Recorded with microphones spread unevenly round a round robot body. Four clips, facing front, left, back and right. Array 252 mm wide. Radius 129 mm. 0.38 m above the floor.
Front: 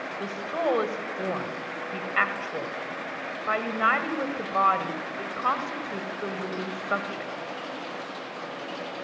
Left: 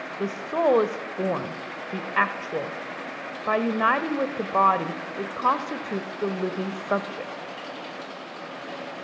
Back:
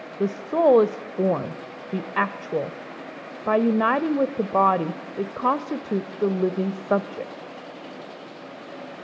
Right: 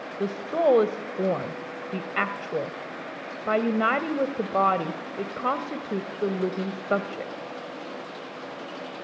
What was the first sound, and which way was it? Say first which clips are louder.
A woman speaking: even, back 9 dB; 170° right.